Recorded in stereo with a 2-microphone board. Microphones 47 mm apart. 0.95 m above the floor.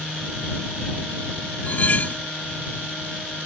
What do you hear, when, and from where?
1.6 s cutlery clinking: 50° left (ahead or behind)